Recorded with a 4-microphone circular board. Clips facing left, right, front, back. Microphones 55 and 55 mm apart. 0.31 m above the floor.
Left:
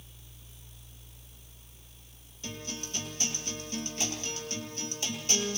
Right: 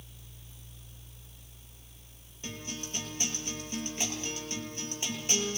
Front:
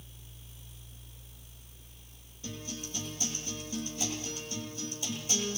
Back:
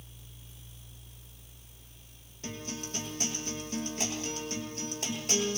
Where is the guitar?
160° right, 7.5 m.